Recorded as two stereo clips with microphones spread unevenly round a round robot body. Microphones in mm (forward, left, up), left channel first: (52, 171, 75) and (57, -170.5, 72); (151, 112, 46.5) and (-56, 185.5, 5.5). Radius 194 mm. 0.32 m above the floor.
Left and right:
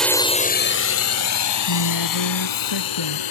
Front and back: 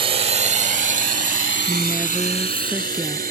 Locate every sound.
0.0 s a drone: straight behind; by 3.3 s 110° left
1.7 s a woman speaking: 75° left